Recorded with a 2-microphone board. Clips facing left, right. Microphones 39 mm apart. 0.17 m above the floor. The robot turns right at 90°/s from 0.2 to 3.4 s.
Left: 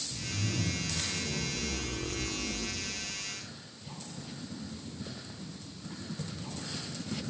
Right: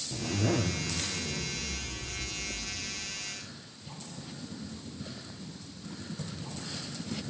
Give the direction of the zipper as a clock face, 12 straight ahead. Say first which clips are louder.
Right 7 dB; 3 o'clock.